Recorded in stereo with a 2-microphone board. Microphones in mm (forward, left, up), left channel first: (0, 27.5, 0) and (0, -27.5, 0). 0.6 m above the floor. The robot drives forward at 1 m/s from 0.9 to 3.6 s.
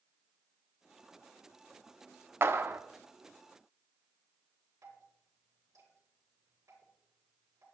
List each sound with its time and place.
2.4 s a clap: 45° right (ahead or behind), 0.9 m; by 2.8 s 40° right (ahead or behind), 1.0 m
4.8 s dripping: 85° right, 8 m